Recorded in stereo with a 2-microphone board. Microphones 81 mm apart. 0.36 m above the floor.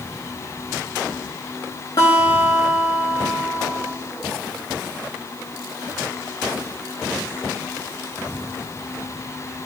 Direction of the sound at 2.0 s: 55° left (ahead or behind).